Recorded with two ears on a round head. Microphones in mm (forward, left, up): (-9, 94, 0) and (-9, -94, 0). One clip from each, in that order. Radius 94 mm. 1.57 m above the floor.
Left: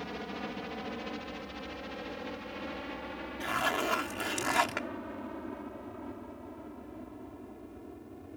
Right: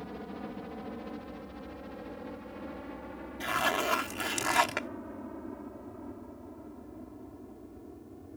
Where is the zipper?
10° right (ahead or behind).